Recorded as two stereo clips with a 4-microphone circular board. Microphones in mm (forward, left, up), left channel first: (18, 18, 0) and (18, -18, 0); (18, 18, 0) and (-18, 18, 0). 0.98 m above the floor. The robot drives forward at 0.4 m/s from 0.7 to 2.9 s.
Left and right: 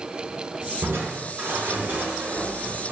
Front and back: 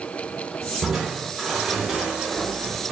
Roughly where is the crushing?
Right.